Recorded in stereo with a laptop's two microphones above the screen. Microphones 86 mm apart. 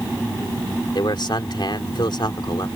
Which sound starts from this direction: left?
A man speaking, at 0.9 s.